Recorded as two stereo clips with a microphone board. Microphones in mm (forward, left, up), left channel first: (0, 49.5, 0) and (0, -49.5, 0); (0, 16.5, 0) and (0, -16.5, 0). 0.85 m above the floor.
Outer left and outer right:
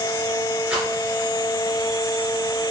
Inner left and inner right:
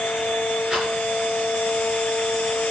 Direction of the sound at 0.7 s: 15° right (ahead or behind).